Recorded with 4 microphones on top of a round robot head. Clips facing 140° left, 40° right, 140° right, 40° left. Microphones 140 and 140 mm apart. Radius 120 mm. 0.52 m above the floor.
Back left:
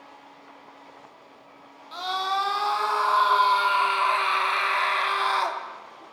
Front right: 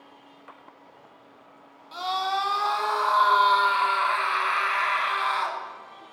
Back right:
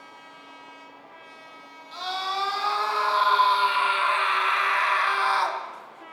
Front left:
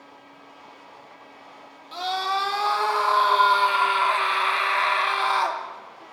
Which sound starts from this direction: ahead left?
A scream, at 1.9 s.